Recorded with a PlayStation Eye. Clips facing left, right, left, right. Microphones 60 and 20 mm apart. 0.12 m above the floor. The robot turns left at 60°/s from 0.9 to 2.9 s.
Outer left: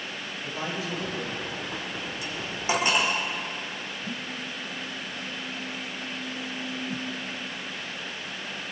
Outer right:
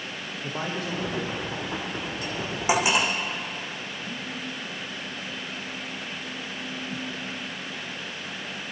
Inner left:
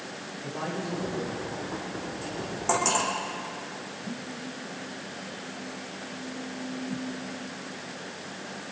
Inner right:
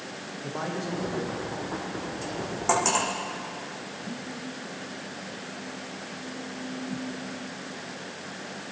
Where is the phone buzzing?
70° left (ahead or behind), 7.5 m.